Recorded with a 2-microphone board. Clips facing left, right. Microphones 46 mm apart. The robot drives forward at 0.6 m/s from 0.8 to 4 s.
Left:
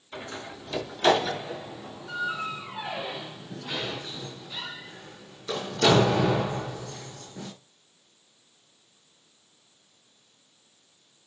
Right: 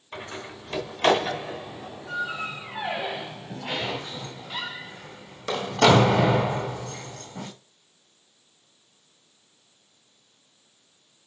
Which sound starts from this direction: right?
A door slam, at 0.1 s.